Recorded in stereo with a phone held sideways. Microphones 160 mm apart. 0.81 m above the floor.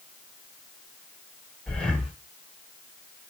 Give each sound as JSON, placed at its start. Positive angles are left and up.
{"t": 1.7, "sound": "breathing", "side_deg": 5, "distance_m": 0.8}